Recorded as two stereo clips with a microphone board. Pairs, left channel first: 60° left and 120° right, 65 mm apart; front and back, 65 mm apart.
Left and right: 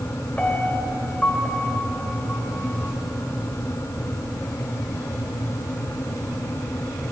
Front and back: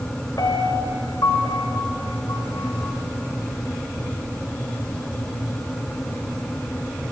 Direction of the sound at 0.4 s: 15° right.